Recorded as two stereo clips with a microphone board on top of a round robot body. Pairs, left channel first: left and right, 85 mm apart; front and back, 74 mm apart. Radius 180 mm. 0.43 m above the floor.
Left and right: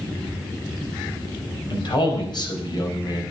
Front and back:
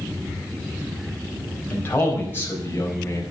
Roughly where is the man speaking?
Ahead left.